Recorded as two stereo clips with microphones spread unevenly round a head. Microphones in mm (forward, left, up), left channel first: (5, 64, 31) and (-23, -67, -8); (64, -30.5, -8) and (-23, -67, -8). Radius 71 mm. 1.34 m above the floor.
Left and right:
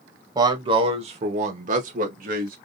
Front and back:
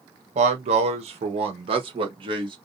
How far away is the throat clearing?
No throat clearing in this recording.